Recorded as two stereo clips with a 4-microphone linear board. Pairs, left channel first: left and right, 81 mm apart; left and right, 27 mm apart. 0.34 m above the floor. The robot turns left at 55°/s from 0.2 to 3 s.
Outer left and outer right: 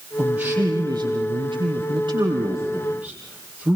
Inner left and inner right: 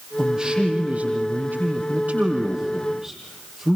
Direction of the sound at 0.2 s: 10° right.